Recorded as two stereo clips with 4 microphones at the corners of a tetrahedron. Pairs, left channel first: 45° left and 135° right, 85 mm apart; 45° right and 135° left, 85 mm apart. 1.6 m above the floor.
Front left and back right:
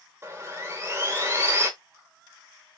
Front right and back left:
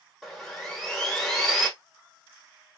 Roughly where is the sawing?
Behind right.